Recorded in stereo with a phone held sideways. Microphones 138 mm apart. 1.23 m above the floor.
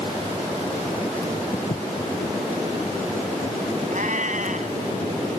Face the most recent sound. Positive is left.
turn(degrees=-65)  # may be behind; listen again after turning